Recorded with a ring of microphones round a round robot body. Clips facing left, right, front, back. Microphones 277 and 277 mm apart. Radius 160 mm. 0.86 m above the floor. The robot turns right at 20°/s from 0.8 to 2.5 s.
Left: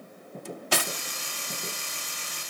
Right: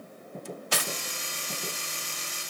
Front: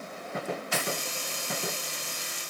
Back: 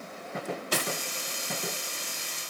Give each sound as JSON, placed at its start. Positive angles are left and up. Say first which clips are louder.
{"t": 0.5, "sound": "cutlery clinking", "louder": "left 3 dB, back 1 dB", "azimuth_deg": 120, "distance_m": 0.8}